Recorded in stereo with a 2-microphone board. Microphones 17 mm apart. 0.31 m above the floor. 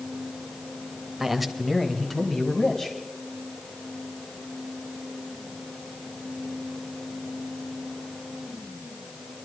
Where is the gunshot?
I don't hear a gunshot.